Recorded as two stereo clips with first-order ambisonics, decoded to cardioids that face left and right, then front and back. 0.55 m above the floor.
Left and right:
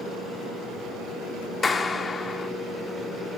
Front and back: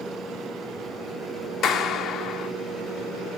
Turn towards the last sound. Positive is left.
turn(degrees=25)